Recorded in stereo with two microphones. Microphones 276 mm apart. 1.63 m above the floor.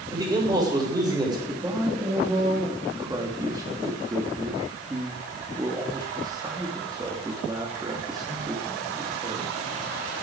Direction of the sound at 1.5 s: 15° right (ahead or behind).